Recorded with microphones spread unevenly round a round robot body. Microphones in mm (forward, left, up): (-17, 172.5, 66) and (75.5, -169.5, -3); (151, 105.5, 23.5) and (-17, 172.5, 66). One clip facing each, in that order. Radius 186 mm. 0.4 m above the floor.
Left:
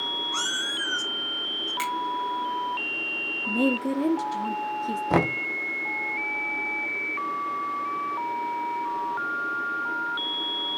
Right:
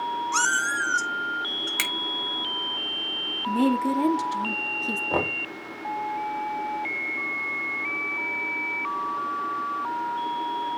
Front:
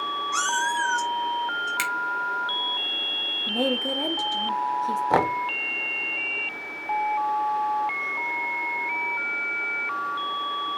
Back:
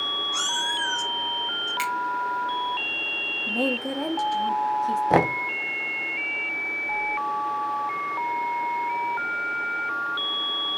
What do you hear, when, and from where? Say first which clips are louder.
0.3 s a cat meowing: right 2 dB, front 7 dB; 65° right, 4 m; by 1.7 s 55° right, 3.5 m
1.8 s a finger snap: left 1 dB, back 5 dB; 50° right, 2 m
3.5 s a woman speaking: right 2 dB, front 1 dB; 70° right, 1.4 m
5.1 s knocking: left 5 dB, back 2 dB; 85° left, 1.2 m